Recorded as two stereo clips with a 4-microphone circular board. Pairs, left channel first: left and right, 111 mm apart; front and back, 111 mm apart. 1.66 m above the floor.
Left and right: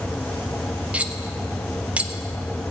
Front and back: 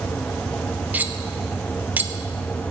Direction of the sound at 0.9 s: 145° right.